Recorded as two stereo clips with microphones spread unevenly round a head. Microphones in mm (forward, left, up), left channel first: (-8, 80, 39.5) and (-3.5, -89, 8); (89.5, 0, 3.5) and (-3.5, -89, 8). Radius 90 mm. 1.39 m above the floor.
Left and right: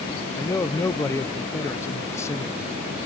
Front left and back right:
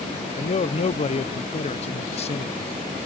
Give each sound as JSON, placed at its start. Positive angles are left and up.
{"t": 0.3, "sound": "a man speaking", "azimuth_deg": 15}